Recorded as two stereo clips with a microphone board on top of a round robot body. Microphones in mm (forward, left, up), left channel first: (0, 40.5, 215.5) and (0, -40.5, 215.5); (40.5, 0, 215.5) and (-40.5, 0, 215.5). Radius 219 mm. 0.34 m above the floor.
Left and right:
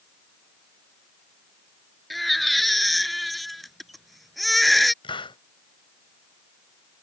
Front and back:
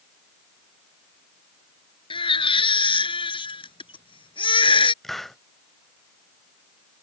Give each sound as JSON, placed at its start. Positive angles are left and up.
{"t": 2.1, "sound": "a baby crying", "azimuth_deg": 0}
{"t": 5.0, "sound": "a hiss", "azimuth_deg": 85}